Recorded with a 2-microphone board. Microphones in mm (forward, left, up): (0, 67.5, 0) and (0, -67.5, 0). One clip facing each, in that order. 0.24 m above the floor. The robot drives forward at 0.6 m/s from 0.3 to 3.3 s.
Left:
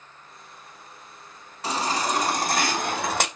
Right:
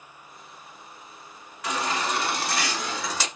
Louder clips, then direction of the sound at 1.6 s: Left 2 dB; 30° left (ahead or behind).